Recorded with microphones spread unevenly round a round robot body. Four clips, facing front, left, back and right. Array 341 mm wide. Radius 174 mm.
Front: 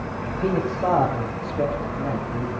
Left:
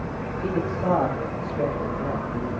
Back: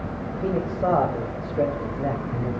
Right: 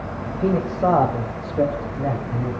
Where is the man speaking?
75° right, 3 m; by 2.5 s 115° right, 3.5 m.